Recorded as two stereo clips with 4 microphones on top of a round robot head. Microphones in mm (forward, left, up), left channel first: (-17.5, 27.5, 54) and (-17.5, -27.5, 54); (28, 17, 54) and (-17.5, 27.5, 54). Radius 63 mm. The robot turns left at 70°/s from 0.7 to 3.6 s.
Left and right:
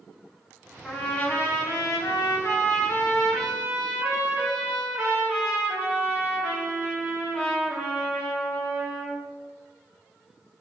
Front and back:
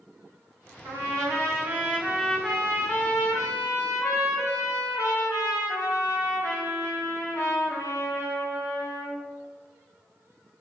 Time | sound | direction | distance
0.8 | a trumpet | 175° left | 0.7 m